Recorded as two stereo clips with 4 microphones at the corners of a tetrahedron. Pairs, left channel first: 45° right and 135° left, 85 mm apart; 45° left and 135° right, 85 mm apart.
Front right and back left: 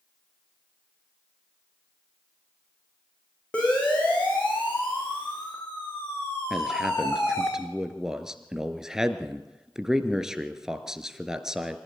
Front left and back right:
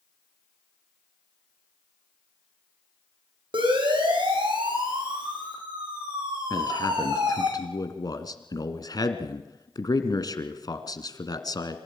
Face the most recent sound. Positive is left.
turn(degrees=55)